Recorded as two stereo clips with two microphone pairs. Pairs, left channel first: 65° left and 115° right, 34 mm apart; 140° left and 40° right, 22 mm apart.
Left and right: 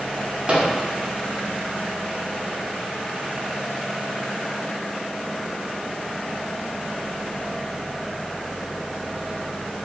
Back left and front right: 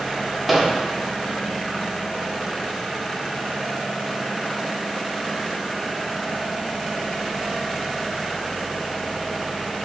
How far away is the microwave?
About 0.6 m.